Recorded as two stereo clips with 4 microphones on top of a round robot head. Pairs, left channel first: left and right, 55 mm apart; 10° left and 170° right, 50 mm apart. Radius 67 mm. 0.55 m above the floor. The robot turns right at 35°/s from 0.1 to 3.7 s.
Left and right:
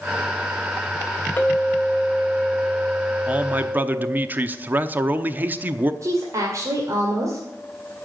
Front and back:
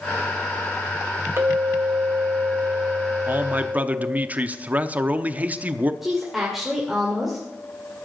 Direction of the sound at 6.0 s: 85° right.